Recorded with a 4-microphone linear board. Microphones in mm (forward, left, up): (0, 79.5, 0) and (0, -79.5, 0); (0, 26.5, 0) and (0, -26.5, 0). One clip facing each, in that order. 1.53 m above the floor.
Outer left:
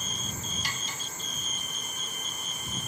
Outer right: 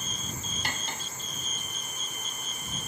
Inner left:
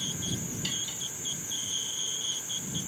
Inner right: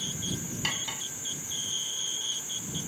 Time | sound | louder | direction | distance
0.6 | cutlery clinking | outer right 3 dB, inner right 4 dB | 60° right (ahead or behind) | ?